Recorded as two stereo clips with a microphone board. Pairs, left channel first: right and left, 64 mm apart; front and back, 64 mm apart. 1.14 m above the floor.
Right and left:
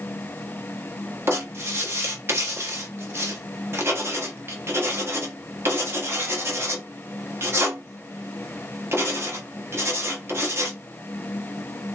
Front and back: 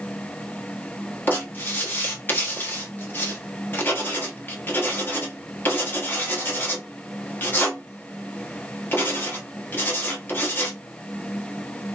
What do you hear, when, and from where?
1.3 s writing: 50° left, 1.1 m